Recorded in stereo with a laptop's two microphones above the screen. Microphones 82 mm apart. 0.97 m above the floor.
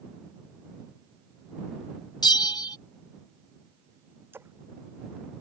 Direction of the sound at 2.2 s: 60° left (ahead or behind).